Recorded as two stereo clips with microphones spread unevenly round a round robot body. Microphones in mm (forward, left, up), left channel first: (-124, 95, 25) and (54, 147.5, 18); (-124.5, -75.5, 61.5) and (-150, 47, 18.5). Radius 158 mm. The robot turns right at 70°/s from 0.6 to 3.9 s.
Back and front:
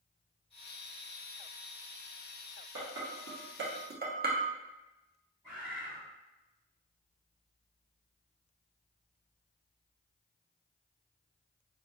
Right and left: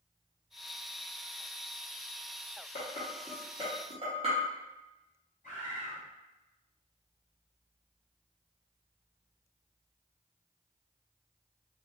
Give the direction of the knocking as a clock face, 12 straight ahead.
I don't hear knocking.